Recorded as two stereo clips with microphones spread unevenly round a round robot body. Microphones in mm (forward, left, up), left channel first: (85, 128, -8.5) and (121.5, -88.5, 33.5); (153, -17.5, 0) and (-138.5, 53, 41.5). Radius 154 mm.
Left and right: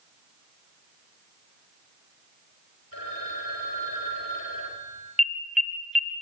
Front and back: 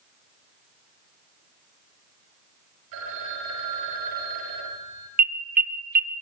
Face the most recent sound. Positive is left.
turn(degrees=165)